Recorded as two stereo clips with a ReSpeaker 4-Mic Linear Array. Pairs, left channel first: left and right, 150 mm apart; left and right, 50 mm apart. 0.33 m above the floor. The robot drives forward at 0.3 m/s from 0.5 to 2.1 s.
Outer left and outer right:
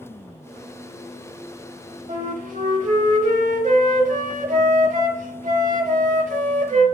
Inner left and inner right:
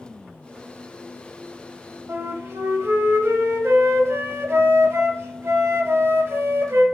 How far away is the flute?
About 0.7 m.